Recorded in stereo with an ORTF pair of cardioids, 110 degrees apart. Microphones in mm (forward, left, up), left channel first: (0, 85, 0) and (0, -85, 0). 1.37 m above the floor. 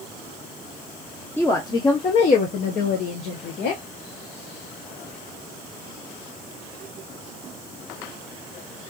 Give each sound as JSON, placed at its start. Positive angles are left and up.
{"t": 1.4, "sound": "a woman speaking", "azimuth_deg": 10, "distance_m": 0.9}